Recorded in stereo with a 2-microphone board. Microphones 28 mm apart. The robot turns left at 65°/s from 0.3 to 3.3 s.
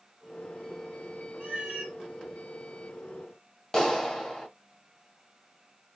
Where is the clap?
25° left (ahead or behind), 0.7 m.